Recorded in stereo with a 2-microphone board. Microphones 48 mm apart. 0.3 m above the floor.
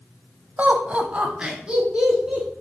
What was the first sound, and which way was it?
Laughter, 40° right (ahead or behind).